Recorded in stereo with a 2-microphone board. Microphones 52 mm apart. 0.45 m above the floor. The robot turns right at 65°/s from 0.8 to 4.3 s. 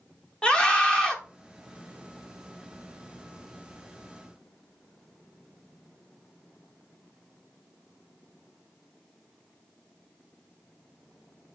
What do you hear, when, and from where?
0.4 s a scream: 20° left (ahead or behind), 0.8 m; by 1.2 s 10° left (ahead or behind), 0.8 m